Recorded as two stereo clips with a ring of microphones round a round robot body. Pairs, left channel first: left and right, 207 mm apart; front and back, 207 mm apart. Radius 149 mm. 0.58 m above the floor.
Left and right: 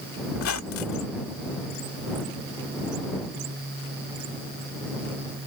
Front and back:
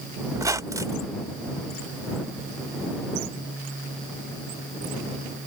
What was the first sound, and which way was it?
A squeak, 105° left.